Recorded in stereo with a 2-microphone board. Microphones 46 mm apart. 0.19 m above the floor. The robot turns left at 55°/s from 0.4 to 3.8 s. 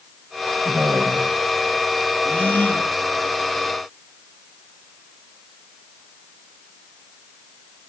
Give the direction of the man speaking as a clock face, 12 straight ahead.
2 o'clock.